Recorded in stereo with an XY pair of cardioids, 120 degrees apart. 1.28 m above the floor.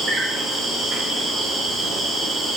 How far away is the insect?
About 1.0 m.